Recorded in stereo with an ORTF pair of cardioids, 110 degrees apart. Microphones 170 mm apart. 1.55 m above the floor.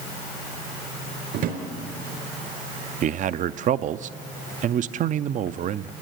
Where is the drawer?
65° right, 4 m.